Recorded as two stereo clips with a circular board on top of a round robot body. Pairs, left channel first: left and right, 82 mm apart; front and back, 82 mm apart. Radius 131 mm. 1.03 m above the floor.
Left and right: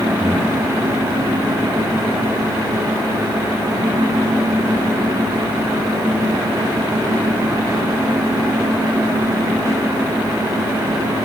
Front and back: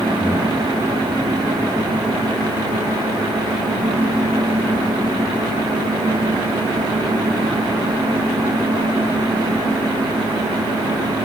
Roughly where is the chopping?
I don't hear chopping.